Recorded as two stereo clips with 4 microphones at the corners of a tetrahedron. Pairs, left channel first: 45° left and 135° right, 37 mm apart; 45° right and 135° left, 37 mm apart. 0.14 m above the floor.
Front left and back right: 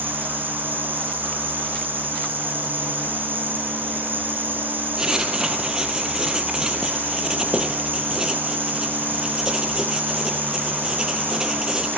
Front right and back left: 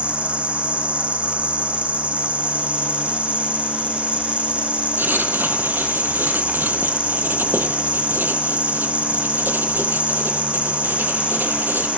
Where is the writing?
150° left, 2 m.